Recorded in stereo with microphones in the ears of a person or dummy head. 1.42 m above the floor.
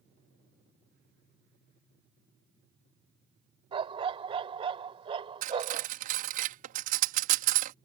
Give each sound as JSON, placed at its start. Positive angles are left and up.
{"t": 3.7, "sound": "a dog barking", "side_deg": -30}
{"t": 5.4, "sound": "cutlery clinking", "side_deg": -45}